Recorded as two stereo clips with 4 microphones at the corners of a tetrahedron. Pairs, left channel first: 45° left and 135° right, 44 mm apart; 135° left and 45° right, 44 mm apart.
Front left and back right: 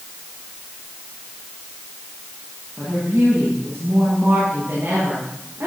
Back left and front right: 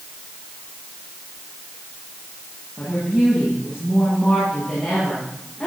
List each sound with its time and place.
2.8 s a woman speaking: 155° right, 9 m